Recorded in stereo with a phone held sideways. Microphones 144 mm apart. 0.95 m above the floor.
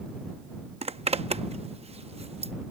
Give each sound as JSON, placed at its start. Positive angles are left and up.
{"t": 0.8, "sound": "a zipper", "side_deg": -45}